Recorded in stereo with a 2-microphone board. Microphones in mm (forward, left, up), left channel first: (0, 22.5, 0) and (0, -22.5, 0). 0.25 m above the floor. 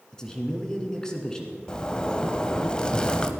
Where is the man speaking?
15° left (ahead or behind), 2 m.